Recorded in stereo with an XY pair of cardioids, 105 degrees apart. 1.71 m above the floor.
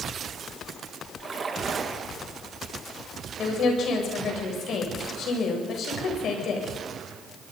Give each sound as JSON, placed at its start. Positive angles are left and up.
{"t": 1.2, "sound": "a splash", "azimuth_deg": -40, "distance_m": 2.5}
{"t": 3.4, "sound": "a woman speaking", "azimuth_deg": 65, "distance_m": 7.5}